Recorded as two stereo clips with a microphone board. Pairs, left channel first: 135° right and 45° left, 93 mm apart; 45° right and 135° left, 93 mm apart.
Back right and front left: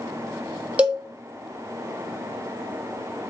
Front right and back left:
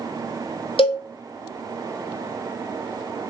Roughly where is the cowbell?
Ahead right.